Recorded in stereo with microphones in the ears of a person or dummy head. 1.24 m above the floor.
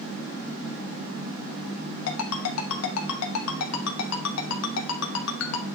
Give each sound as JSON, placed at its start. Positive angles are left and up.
{"t": 2.1, "sound": "a ringtone", "side_deg": 80, "distance_m": 1.0}